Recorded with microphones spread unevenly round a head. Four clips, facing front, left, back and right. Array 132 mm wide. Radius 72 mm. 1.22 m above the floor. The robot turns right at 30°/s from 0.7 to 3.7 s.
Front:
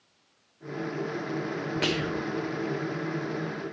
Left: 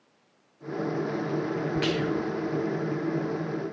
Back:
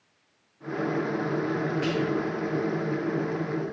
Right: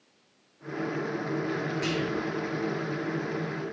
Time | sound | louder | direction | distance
1.8 | whispering | left 3 dB, back 1 dB | 20° left | 0.6 m